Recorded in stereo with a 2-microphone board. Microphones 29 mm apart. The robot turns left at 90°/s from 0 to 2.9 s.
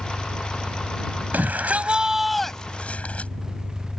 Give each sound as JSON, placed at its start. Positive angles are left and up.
{"t": 0.0, "sound": "an engine running", "azimuth_deg": -145}
{"t": 1.3, "sound": "a shout", "azimuth_deg": -95}